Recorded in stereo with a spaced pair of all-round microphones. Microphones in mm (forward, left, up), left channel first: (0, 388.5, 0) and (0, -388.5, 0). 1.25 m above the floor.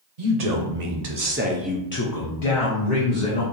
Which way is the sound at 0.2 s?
60° right (ahead or behind).